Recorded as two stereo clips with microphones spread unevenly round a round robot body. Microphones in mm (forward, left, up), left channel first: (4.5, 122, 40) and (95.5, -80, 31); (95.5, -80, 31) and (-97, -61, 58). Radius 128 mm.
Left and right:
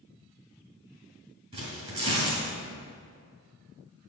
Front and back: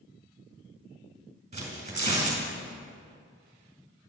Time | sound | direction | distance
1.5 | tearing paper | 130° right | 2.5 m